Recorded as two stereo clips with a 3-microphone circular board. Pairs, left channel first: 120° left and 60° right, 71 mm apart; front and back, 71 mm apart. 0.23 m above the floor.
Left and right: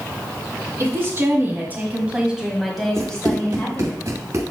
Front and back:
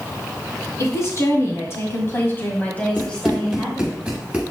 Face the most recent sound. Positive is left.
turn(degrees=-105)